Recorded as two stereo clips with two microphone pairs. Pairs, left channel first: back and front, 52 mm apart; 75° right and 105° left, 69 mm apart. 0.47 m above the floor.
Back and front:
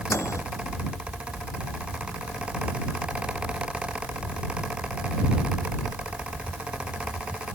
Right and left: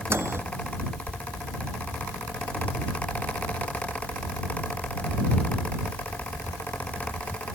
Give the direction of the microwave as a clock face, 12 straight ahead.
7 o'clock.